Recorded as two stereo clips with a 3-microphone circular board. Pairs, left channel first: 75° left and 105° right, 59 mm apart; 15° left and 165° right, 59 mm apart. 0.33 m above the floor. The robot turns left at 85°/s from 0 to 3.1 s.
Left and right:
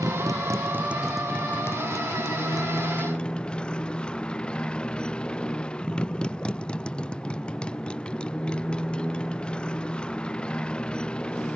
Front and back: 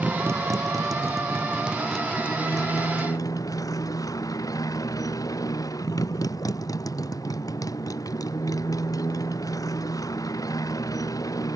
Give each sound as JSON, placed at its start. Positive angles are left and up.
{"t": 0.0, "sound": "a motorcycle", "azimuth_deg": -95}